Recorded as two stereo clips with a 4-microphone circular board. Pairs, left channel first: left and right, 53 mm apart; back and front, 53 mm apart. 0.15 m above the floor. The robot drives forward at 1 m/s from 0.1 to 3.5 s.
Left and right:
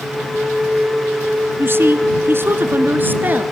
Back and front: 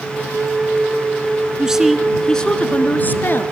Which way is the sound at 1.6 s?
70° right.